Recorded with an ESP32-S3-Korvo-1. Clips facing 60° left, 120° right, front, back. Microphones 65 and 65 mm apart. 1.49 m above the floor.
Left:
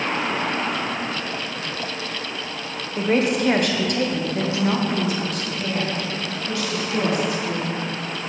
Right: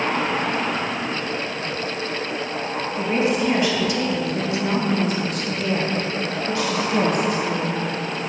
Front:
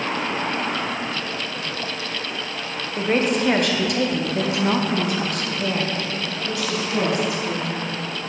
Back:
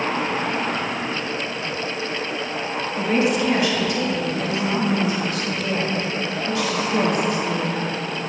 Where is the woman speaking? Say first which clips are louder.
Left 2 dB, even; 45° left, 1.2 m; by 7.7 s 70° right, 2 m.